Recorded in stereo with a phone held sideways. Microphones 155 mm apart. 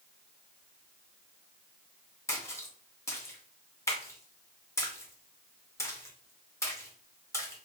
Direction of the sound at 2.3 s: 20° left (ahead or behind).